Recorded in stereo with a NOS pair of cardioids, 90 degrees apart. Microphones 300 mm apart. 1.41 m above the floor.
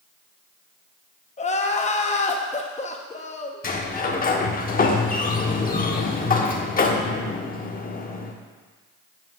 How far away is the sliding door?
About 0.9 m.